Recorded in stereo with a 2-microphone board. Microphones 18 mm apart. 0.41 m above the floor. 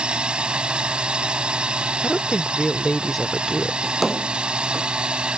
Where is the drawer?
5° right (ahead or behind).